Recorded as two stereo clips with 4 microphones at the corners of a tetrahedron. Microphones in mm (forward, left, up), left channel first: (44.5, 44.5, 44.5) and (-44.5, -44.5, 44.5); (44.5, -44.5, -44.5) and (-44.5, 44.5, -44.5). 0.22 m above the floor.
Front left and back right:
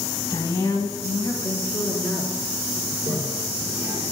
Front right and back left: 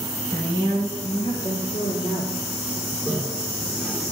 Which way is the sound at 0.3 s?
5° left.